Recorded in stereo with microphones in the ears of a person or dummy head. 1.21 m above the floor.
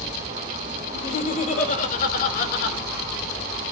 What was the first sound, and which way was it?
Laughter, 40° left (ahead or behind).